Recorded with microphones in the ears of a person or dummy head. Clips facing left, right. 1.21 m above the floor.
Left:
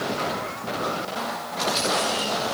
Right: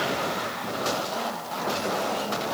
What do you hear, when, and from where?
Only background noise.